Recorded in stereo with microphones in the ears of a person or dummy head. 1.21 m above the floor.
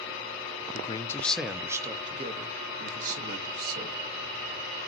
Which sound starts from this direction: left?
A man speaking, at 0.7 s.